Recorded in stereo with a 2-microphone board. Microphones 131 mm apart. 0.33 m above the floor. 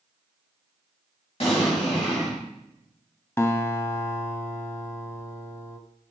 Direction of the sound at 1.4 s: 50° left (ahead or behind).